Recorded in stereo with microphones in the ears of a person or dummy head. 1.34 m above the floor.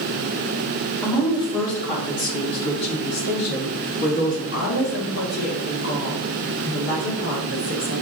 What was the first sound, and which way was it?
A woman speaking, 25° left (ahead or behind).